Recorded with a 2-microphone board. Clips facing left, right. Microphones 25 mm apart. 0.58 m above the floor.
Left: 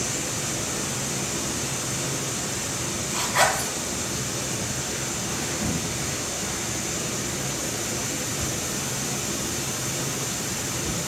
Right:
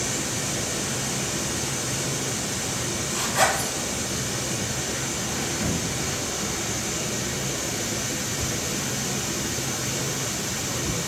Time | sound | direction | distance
0.0 | running water | 30° right (ahead or behind) | 0.8 m
3.1 | a zipper | 60° left (ahead or behind) | 0.9 m
5.6 | a thud | 45° right (ahead or behind) | 0.6 m